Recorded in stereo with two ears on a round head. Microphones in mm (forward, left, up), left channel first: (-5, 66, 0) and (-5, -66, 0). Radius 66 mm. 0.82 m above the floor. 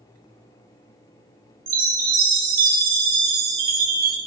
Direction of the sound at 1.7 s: 60° right (ahead or behind).